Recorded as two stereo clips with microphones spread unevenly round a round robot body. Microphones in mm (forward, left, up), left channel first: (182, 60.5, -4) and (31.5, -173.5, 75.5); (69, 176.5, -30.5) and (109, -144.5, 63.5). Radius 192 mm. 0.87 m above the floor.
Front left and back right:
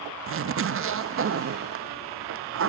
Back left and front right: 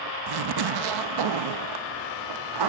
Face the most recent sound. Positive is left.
turn(degrees=-70)